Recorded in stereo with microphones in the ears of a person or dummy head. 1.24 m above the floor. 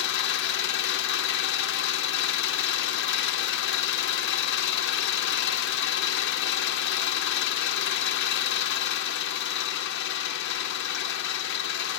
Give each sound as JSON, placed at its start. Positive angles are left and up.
{"t": 0.0, "sound": "an engine running", "side_deg": 65, "distance_m": 0.8}